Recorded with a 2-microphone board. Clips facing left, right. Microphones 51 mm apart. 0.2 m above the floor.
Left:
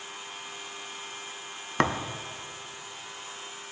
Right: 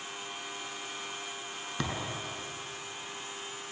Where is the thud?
55° left (ahead or behind), 1.2 m.